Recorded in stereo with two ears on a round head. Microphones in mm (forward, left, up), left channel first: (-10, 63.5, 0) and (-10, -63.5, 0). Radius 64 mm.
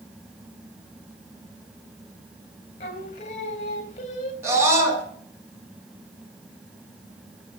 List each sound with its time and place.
2.8 s singing: 50° left (ahead or behind), 3 m
4.4 s a scream: 20° right (ahead or behind), 6 m